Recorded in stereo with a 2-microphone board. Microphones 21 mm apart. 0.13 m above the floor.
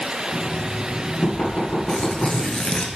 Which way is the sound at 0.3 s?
50° left (ahead or behind).